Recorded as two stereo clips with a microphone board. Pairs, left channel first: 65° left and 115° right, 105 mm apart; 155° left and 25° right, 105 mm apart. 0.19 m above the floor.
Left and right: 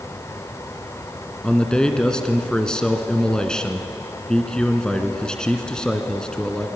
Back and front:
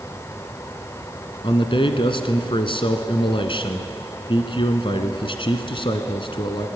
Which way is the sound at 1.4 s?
150° left.